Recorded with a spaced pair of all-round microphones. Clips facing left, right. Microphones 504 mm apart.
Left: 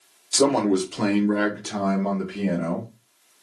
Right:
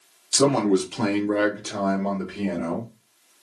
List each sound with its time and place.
0.3 s a man speaking: 35° right (ahead or behind), 0.6 m; by 2.9 s 40° left (ahead or behind), 1.2 m